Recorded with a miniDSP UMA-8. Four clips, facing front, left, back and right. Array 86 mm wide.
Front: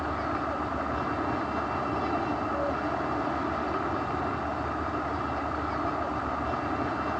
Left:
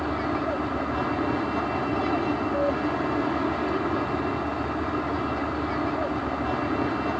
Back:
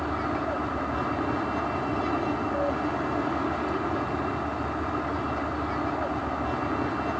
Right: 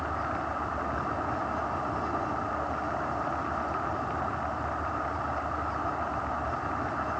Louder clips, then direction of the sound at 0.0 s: Left 5 dB, back 2 dB; 105° left.